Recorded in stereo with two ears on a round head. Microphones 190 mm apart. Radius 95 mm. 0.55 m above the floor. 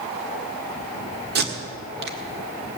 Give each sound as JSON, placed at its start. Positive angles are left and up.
{"t": 1.4, "sound": "tape being pulled", "side_deg": -50, "distance_m": 1.5}